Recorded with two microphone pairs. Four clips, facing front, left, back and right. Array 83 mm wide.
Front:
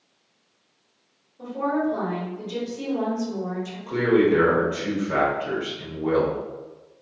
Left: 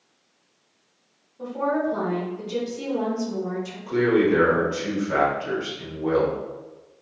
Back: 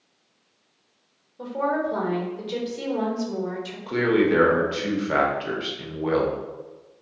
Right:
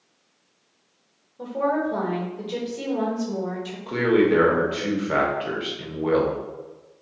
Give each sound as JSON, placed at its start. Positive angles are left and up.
{"t": 1.4, "sound": "a woman speaking", "azimuth_deg": -155, "distance_m": 1.1}
{"t": 3.9, "sound": "a man speaking", "azimuth_deg": -140, "distance_m": 0.8}